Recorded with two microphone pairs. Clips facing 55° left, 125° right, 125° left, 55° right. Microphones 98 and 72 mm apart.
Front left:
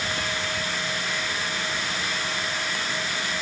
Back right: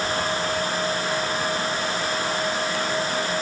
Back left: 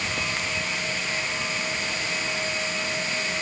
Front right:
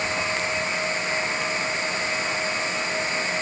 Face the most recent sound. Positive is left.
No sound to turn to.